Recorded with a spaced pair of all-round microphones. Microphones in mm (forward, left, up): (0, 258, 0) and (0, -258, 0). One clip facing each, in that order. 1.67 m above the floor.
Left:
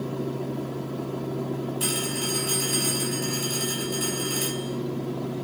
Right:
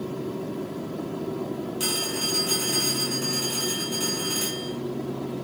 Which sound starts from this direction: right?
A phone ringing, at 1.8 s.